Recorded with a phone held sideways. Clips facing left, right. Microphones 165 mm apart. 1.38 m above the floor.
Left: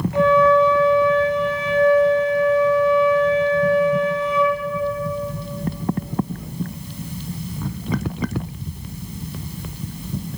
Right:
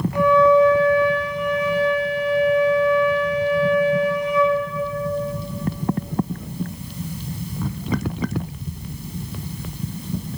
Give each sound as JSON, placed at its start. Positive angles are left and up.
{"t": 0.1, "sound": "a flute", "side_deg": 20, "distance_m": 6.0}